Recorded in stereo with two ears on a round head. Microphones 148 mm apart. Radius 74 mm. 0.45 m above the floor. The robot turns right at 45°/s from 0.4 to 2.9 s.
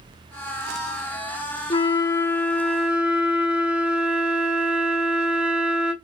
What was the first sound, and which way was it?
A flute, 135° left.